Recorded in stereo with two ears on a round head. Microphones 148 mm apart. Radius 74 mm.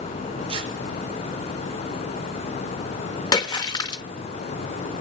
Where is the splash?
25° left (ahead or behind), 1.3 m.